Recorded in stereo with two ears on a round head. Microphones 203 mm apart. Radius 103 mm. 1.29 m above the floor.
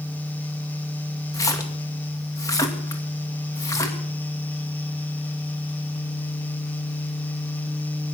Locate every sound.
1.3 s a splash: 15° left (ahead or behind), 2 m